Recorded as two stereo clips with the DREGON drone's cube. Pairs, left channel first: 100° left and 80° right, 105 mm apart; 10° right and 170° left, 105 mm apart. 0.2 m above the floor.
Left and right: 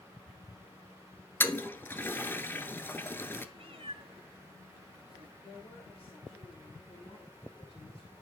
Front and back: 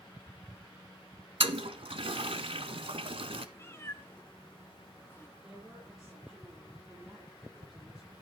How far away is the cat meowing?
About 1.8 m.